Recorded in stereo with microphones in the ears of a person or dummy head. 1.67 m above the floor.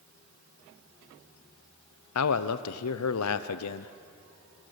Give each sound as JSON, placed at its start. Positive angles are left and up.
{"t": 2.1, "sound": "a man speaking", "side_deg": 85, "distance_m": 0.8}